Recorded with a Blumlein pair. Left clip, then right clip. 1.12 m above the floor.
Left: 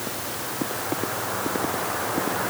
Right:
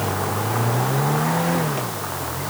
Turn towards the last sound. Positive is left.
No sound to turn to.